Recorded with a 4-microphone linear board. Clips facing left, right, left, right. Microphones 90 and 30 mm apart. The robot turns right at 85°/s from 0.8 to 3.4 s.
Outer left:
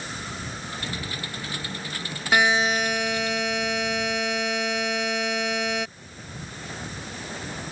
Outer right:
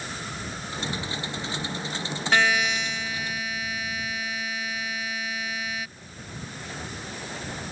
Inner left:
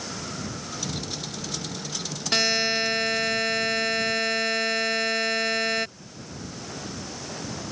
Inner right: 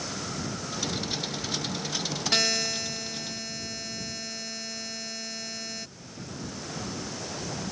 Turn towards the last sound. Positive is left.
turn(degrees=100)